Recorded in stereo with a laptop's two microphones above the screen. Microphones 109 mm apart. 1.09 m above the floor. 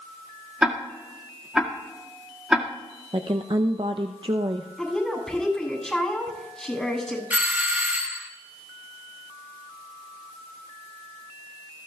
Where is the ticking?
5° right (ahead or behind), 2.0 m.